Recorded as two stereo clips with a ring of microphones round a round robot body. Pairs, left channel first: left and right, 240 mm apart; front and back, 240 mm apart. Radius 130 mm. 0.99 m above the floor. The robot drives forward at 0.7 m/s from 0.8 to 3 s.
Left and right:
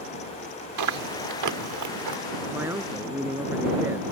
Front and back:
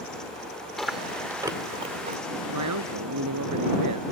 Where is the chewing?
90° right; by 2.2 s 120° right.